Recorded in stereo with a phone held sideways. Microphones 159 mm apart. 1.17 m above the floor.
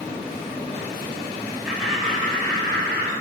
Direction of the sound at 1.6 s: 15° right (ahead or behind).